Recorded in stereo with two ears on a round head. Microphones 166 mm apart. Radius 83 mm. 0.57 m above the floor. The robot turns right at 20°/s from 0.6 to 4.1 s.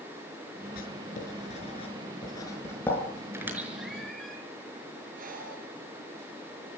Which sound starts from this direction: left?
Writing, at 0.8 s.